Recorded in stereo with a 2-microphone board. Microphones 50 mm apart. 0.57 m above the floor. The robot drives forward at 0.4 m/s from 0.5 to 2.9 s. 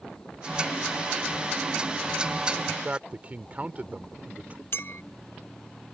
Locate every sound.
2.7 s a man speaking: 35° right (ahead or behind); by 4.6 s 30° right (ahead or behind)
4.7 s a clink: 55° left (ahead or behind)